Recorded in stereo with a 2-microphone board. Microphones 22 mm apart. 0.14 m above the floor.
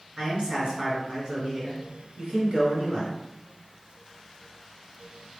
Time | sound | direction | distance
0.2 | a man speaking | 40° right (ahead or behind) | 2 m